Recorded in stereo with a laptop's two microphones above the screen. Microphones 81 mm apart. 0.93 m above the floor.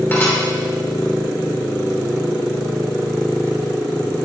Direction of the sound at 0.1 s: 25° left (ahead or behind).